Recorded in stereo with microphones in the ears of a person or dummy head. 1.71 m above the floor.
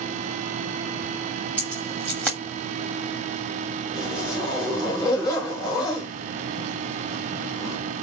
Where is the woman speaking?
I don't hear a woman speaking.